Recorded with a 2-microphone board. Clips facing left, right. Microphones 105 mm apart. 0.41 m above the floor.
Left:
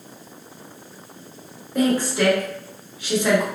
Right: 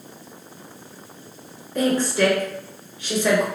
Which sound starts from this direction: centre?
A woman speaking, at 1.8 s.